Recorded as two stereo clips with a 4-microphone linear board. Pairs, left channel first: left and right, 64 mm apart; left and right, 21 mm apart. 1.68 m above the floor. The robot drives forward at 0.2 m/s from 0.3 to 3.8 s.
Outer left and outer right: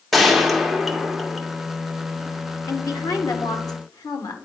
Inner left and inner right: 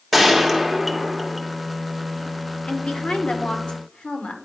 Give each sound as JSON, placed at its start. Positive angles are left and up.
{"t": 0.1, "sound": "a gunshot", "side_deg": 0, "distance_m": 1.0}
{"t": 2.6, "sound": "a woman speaking", "side_deg": 90, "distance_m": 1.1}